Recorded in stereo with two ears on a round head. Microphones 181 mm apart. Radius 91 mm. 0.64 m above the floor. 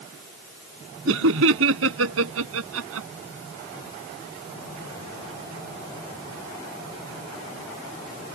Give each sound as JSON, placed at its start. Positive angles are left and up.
{"t": 1.1, "sound": "laughter", "side_deg": -70}